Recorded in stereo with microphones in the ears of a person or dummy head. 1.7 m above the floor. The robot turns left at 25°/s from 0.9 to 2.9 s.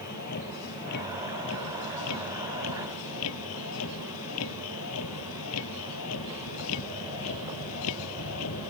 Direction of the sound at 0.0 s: 130° left.